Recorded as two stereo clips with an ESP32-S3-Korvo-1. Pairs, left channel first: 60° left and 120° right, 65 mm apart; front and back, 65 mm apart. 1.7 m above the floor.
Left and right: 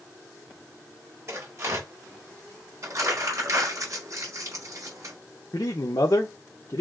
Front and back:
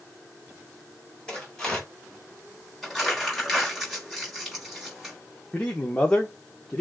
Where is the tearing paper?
75° right, 3.5 m.